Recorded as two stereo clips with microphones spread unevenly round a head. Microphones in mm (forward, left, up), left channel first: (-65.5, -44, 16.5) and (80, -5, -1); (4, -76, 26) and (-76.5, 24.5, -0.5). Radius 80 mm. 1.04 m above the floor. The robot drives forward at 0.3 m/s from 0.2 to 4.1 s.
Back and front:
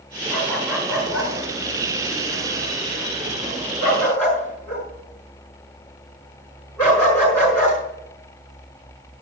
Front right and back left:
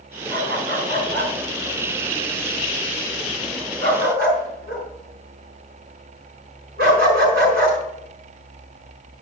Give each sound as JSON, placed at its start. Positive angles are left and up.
{"t": 0.3, "sound": "a dog barking", "azimuth_deg": 105, "distance_m": 5.0}